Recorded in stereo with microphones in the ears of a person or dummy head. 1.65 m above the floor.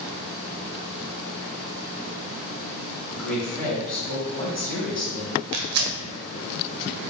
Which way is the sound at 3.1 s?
Centre (ahead or behind).